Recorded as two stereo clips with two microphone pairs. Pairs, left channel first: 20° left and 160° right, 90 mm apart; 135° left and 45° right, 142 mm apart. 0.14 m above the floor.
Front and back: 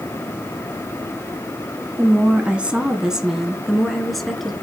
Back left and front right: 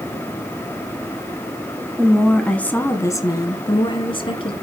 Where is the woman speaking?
130° right, 1.3 m; by 4.5 s 105° left, 1.9 m.